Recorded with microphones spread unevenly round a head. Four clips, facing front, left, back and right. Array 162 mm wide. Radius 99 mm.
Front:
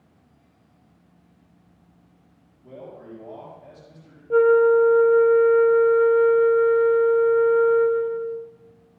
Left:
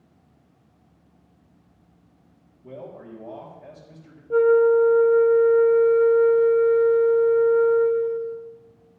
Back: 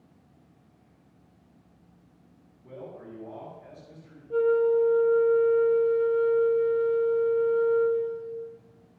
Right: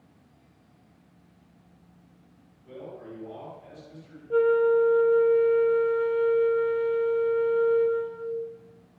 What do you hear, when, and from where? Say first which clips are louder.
2.6 s a man speaking: left 2 dB, front 2 dB; 65° left, 4 m
4.3 s a flute: left 5 dB, front 7 dB; 5° left, 0.9 m